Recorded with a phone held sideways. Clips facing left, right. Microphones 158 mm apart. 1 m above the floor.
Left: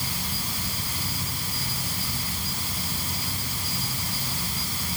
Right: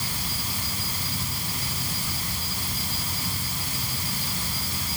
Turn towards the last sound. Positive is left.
No sound to turn to.